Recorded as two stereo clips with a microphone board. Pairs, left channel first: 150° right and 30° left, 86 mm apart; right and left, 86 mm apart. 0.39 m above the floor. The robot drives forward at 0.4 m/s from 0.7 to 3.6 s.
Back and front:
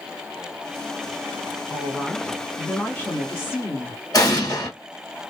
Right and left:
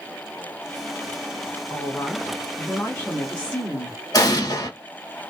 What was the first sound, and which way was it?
A woman speaking, 40° right.